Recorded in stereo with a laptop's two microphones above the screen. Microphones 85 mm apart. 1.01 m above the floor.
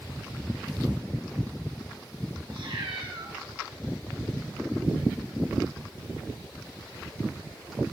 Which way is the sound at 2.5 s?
75° right (ahead or behind).